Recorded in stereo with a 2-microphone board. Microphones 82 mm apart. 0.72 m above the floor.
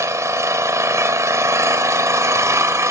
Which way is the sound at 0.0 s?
40° right (ahead or behind).